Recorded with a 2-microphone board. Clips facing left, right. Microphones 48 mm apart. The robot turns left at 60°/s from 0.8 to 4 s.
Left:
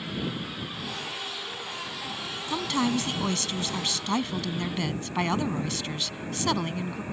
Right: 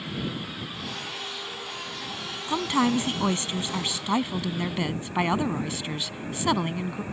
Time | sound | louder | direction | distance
2.5 | a woman speaking | right 3 dB | 20° right (ahead or behind) | ?